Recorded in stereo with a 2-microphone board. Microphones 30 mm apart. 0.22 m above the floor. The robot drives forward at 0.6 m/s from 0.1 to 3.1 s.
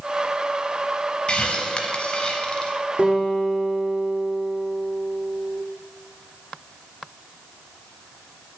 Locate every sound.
1.3 s a hiss: 35° left (ahead or behind), 0.9 m; by 2.7 s 25° left (ahead or behind), 1.2 m
3.0 s a guitar: 40° right (ahead or behind), 1.7 m; by 5.6 s 35° right (ahead or behind), 1.8 m